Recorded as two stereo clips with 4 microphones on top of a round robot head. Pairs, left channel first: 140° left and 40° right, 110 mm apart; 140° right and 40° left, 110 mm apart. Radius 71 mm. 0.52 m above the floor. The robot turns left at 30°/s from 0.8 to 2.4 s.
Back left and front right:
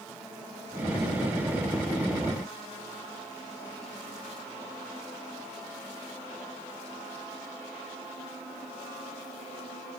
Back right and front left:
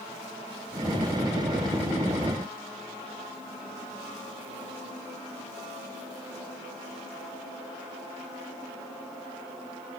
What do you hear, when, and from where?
Only background noise.